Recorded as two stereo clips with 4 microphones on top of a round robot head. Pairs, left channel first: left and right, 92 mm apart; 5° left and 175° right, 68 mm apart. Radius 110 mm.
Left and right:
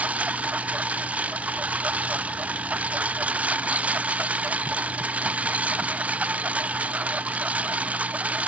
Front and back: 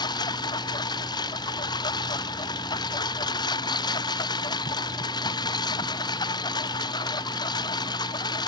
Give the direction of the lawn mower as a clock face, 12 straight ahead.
12 o'clock.